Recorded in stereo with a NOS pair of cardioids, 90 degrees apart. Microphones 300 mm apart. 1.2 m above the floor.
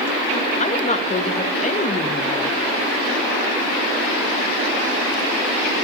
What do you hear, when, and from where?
0.6 s a woman speaking: 25° left, 1.0 m